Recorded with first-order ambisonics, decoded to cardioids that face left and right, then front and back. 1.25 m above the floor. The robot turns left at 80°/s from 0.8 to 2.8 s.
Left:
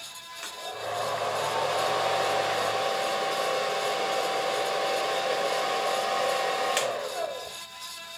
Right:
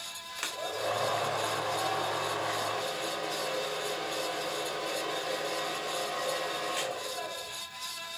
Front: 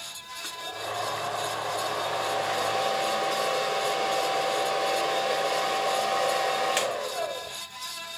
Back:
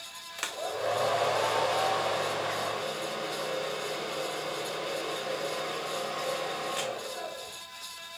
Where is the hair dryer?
155° right, 2.5 m; by 7.6 s 45° left, 2.5 m.